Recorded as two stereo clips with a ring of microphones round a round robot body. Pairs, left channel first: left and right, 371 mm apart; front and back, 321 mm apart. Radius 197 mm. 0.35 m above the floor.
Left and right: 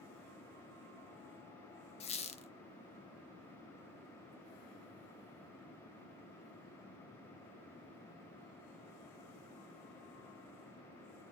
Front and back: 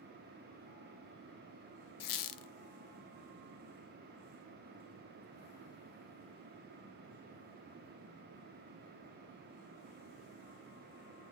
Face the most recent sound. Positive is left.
turn(degrees=15)